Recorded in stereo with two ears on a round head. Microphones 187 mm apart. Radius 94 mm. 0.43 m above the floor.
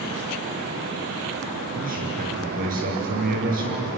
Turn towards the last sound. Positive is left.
turn(degrees=-45)  # may be behind; listen again after turning